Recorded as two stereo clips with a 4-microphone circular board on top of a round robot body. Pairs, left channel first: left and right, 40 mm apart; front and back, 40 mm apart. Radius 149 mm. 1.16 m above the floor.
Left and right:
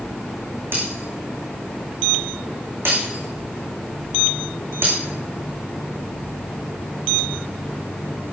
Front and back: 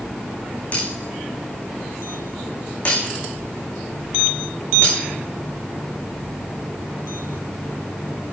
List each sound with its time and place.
0.7 s breaking glass: 60° right, 10 m